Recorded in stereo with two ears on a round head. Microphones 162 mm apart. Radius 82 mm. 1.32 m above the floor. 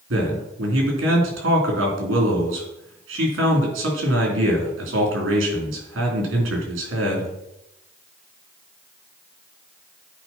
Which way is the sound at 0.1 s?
75° right (ahead or behind).